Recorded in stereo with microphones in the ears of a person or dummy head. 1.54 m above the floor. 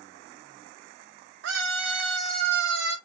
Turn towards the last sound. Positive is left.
turn(degrees=-75)  # may be behind; listen again after turning